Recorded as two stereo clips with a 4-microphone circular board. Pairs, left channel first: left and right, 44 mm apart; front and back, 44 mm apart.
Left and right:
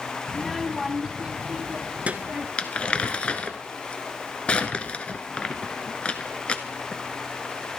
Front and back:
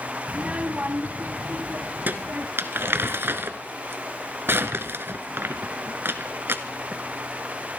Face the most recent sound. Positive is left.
turn(degrees=150)